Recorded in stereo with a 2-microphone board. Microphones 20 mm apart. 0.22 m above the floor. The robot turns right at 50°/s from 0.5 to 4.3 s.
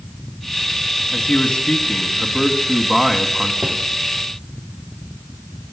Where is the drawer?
65° right (ahead or behind), 3.5 m; by 3.8 s 60° right (ahead or behind), 3.5 m.